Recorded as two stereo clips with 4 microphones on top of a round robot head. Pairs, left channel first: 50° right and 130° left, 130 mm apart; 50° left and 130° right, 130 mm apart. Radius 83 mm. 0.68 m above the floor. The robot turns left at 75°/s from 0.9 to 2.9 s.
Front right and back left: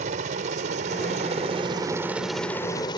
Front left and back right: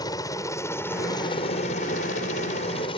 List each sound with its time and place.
0.0 s a helicopter: 110° left; by 3.0 s 5° left